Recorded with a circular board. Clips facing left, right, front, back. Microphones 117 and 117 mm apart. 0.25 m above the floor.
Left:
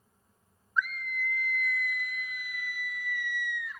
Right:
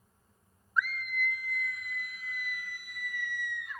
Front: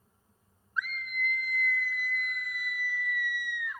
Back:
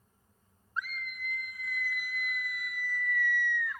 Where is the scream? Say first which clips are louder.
Even, front 4 dB; 175° right, 1.2 m; by 3.8 s 65° right, 1.7 m.